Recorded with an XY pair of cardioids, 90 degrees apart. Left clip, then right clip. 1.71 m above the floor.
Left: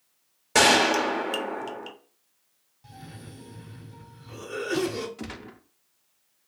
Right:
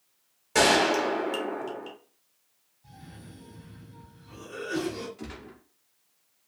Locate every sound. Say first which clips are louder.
0.6 s a gunshot: left 2 dB; 50° left, 0.7 m
2.8 s a cough: left 4 dB; 70° left, 0.9 m
5.2 s a gunshot: left 3 dB; 60° left, 0.6 m